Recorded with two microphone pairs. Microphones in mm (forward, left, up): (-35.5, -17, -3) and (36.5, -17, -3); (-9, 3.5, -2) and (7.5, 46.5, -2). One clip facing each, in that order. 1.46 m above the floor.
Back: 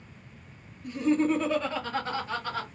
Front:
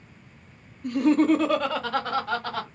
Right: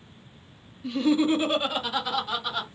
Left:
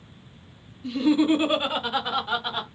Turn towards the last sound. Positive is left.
turn(degrees=15)